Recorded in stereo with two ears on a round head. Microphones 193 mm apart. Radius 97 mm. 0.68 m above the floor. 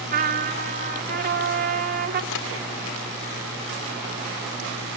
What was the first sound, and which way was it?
A trumpet, 40° right (ahead or behind).